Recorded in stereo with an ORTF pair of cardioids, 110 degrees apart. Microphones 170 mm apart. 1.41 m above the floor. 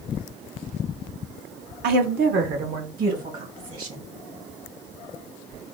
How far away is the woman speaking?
About 0.8 m.